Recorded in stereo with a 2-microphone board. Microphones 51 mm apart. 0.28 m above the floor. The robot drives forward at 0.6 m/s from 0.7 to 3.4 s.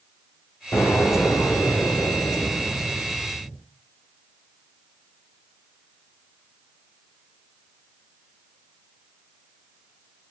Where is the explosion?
80° left, 1.8 m; by 3.6 s 40° left (ahead or behind), 2.5 m.